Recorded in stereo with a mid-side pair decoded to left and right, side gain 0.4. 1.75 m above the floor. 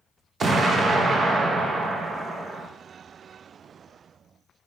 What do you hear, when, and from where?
0.4 s an explosion: 50° right, 0.7 m